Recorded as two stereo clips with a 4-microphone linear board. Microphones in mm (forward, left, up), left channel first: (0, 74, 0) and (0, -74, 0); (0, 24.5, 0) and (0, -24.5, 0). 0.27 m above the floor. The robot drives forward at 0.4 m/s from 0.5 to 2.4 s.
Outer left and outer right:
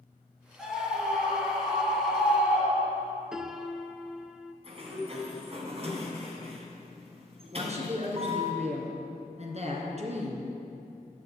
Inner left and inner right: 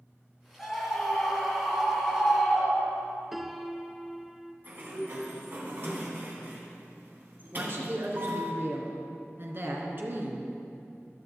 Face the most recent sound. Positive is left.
turn(degrees=-50)  # may be behind; listen again after turning